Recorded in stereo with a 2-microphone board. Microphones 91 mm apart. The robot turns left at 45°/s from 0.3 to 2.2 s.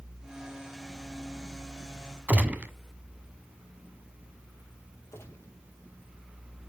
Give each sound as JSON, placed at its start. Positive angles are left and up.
{"t": 2.3, "sound": "a gunshot", "side_deg": -15, "distance_m": 1.4}
{"t": 5.1, "sound": "a gunshot", "side_deg": 30, "distance_m": 5.0}